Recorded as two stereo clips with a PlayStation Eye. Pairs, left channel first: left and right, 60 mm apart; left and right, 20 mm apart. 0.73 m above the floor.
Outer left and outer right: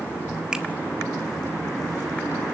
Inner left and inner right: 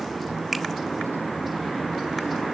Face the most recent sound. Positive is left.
turn(degrees=-10)  # may be behind; listen again after turning